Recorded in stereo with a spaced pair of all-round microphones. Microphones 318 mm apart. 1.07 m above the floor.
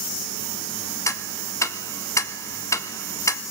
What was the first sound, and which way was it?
Ticking, 10° left (ahead or behind).